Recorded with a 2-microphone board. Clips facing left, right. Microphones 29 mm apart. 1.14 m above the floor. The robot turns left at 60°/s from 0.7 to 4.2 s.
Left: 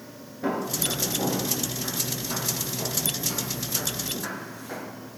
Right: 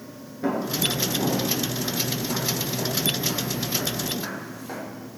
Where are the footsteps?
5° right (ahead or behind), 1.1 m; by 4.8 s 15° right (ahead or behind), 3 m.